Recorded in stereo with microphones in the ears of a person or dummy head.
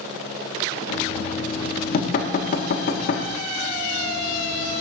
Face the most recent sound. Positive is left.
turn(degrees=50)  # may be behind; listen again after turning